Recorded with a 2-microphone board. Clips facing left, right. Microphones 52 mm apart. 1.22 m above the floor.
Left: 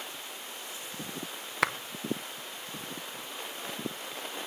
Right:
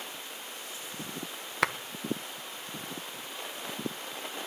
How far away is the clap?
About 0.7 m.